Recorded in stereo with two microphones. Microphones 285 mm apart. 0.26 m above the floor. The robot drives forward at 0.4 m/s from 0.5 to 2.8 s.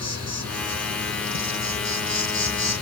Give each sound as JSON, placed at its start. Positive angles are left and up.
{"t": 0.0, "sound": "an insect", "side_deg": -60, "distance_m": 1.7}